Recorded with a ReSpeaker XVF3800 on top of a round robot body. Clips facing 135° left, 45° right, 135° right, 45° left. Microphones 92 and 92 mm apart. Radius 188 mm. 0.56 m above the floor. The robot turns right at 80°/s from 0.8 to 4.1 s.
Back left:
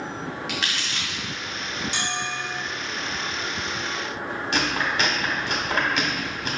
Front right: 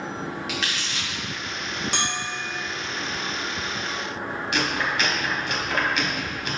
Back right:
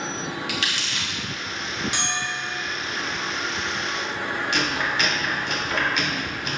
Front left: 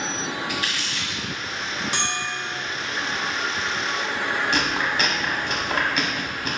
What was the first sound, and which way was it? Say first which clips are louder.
Crumpling: even, front left 1 dB; 135° right.